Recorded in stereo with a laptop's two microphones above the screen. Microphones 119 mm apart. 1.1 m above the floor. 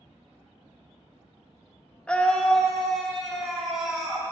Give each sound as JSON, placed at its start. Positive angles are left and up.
{"t": 2.1, "sound": "a scream", "side_deg": 10, "distance_m": 0.7}